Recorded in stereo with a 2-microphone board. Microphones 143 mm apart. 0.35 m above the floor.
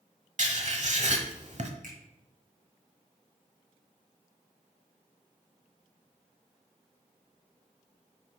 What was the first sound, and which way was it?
Writing, 55° right (ahead or behind).